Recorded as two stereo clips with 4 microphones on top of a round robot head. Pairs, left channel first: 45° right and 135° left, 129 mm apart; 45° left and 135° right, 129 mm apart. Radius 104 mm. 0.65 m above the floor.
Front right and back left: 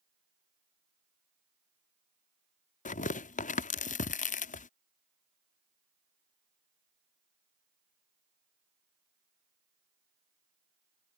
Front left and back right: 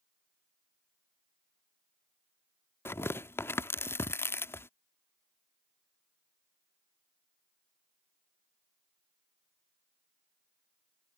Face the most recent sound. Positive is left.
turn(degrees=-25)